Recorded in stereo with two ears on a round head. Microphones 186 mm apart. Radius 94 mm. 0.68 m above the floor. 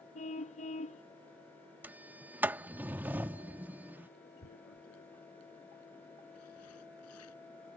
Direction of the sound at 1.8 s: 10° right (ahead or behind).